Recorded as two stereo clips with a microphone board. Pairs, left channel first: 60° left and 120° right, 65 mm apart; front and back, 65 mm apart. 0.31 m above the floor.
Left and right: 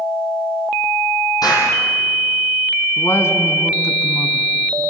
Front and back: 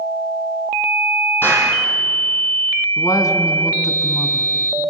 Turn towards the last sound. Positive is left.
turn(degrees=20)